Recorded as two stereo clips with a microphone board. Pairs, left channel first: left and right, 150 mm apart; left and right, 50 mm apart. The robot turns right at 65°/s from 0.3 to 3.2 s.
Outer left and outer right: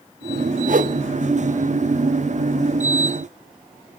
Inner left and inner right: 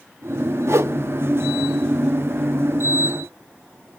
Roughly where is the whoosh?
Right.